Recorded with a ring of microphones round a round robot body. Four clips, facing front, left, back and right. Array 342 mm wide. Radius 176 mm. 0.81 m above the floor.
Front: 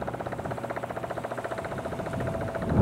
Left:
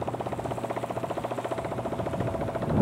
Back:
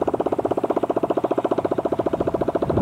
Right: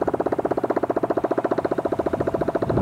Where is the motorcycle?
140° right; by 2.8 s 145° right.